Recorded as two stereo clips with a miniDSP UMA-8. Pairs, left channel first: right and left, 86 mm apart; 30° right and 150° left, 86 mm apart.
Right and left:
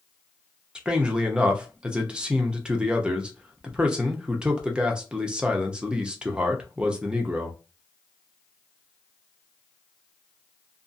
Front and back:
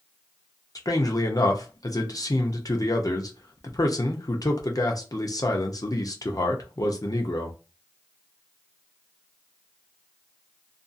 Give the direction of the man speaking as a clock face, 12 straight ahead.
12 o'clock.